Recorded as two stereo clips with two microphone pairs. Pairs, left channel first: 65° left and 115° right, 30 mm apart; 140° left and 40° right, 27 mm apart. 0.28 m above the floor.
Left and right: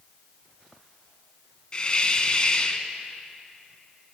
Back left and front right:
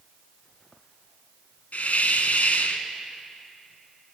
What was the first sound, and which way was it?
A hiss, 120° left.